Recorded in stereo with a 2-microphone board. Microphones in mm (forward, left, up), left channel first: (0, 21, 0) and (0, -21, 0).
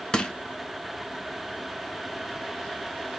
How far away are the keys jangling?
No keys jangling in this recording.